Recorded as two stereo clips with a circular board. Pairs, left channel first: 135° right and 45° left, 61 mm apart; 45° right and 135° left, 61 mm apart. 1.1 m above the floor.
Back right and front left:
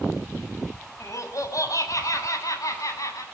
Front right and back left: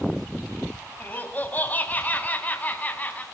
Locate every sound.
1.0 s laughter: 105° right, 6.5 m; by 3.2 s 110° right, 8 m